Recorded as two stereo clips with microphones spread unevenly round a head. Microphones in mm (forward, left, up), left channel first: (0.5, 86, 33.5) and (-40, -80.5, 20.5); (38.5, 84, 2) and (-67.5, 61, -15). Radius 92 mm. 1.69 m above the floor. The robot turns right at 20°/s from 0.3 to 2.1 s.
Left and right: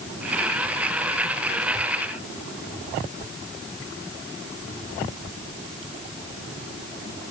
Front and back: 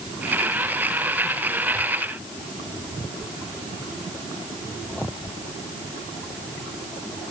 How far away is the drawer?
No drawer in this recording.